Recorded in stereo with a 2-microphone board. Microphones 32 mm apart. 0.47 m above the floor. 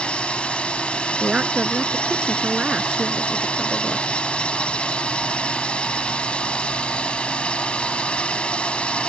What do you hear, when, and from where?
0.0 s a drone: 35° left (ahead or behind)
1.2 s a woman speaking: 35° right (ahead or behind)